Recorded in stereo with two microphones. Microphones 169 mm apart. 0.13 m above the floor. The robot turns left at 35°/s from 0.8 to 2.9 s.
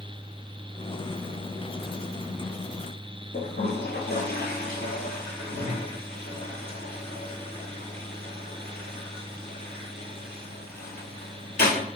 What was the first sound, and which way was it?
A toilet flushing, 70° left (ahead or behind).